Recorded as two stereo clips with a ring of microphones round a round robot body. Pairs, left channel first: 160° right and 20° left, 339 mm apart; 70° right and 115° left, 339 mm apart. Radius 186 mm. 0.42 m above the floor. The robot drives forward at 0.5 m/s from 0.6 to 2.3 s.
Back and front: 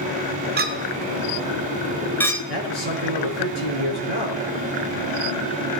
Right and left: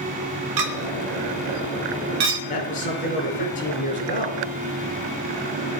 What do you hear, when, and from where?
0.6 s a clink: 85° left, 1.4 m; by 2.4 s 120° left, 1.6 m
2.5 s a man speaking: 135° right, 6.5 m